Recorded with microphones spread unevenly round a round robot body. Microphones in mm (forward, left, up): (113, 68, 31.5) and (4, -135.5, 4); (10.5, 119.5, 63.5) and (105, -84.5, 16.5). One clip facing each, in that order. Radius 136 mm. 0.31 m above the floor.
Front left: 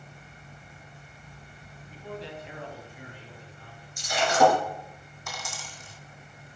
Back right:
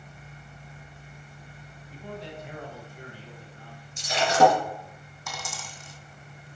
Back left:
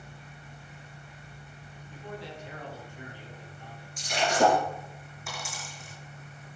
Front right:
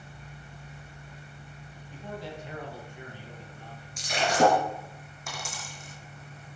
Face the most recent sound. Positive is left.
turn(degrees=-125)